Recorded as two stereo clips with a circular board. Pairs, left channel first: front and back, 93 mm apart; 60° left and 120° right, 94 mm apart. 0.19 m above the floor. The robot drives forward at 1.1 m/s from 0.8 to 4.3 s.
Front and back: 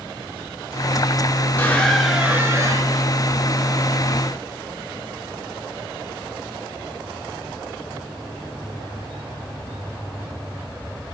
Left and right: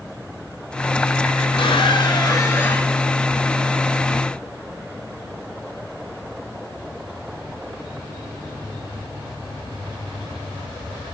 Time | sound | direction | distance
1.6 | a squeak | 65° left | 1.1 m